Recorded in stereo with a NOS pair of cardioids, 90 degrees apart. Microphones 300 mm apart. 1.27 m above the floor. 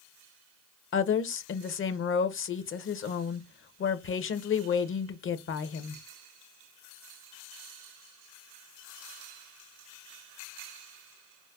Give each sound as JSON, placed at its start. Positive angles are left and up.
{"t": 0.9, "sound": "a woman speaking", "azimuth_deg": 45, "distance_m": 0.7}